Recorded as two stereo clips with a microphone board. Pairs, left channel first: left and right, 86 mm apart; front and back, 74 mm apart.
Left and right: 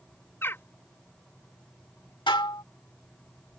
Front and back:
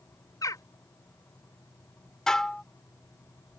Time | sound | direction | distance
0.4 | a bird | 30° left | ?
2.3 | dishes clattering | 80° left | ?